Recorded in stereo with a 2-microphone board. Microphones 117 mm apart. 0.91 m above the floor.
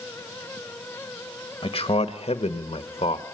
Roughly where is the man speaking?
Left.